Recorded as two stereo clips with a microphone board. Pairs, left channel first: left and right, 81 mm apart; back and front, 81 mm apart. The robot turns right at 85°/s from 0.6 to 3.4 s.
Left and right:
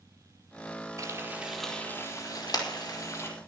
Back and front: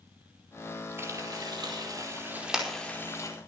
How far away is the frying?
About 4.5 m.